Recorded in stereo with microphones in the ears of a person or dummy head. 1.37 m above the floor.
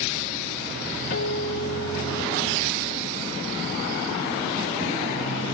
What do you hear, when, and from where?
1.1 s a guitar: 55° left (ahead or behind), 2 m